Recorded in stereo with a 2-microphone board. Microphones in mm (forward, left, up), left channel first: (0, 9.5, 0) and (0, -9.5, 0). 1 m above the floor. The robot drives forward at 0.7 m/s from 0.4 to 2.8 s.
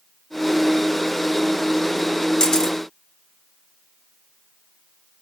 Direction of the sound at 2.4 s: 35° left (ahead or behind).